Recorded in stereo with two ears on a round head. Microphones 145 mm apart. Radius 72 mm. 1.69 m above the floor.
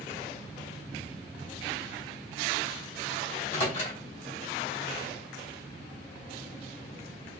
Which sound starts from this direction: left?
A microwave, at 3.3 s.